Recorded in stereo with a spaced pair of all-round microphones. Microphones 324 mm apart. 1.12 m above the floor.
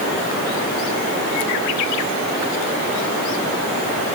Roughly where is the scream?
I don't hear a scream.